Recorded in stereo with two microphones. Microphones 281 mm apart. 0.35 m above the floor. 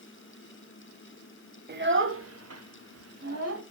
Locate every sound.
1.7 s a child speaking: 35° right (ahead or behind), 1.3 m; by 3.6 s 55° right (ahead or behind), 1.8 m